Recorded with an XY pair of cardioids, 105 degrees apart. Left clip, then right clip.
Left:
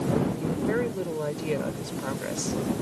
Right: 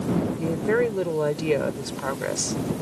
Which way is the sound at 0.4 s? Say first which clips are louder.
Right 5 dB; 45° right.